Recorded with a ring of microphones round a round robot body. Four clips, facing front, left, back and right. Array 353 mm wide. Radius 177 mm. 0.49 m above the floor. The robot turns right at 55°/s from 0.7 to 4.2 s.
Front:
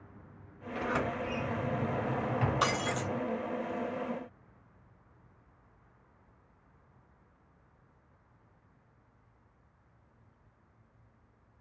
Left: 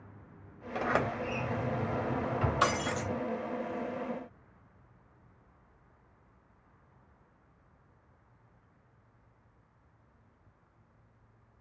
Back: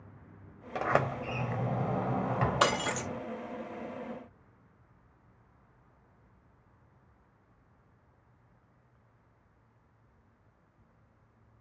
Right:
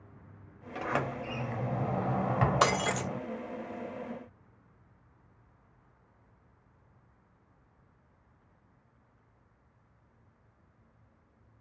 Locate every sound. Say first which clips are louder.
0.8 s a sliding door: left 2 dB, back 3 dB; 160° left, 1.1 m; by 3.2 s 70° right, 1.1 m
2.6 s breaking glass: right 2 dB, back 2 dB; 130° right, 0.7 m; by 3.1 s 100° right, 0.7 m